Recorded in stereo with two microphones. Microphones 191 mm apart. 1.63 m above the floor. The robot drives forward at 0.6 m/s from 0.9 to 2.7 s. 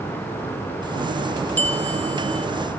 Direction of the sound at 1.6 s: 10° left (ahead or behind).